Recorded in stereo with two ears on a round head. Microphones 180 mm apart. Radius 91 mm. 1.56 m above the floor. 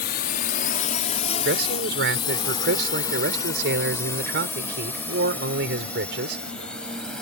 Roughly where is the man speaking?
Right.